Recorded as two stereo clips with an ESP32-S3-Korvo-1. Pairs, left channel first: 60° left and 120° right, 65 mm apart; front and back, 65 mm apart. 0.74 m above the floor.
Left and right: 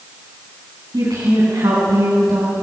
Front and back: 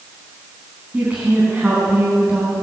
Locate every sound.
0.9 s a woman speaking: 115° right, 7.5 m